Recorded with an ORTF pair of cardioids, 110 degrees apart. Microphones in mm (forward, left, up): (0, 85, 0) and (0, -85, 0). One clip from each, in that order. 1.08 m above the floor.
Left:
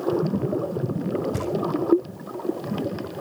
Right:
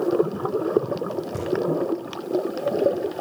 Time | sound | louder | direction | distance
1.3 | knocking | right 1 dB | 40° left | 5 m